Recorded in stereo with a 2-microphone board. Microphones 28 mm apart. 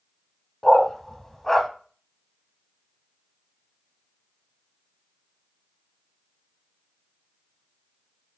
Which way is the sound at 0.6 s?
10° left (ahead or behind).